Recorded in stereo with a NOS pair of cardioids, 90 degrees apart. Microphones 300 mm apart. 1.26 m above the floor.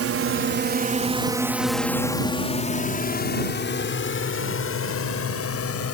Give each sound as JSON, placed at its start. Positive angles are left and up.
{"t": 0.0, "sound": "a drone", "azimuth_deg": -55}